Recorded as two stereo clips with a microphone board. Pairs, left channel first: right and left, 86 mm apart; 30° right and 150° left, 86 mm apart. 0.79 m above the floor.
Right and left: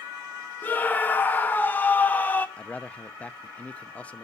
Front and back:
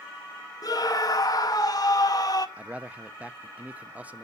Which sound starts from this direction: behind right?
A man speaking, at 2.6 s.